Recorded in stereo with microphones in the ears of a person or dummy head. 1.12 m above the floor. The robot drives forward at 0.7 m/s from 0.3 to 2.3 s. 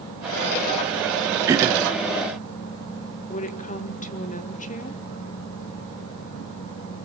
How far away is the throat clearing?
About 1.0 m.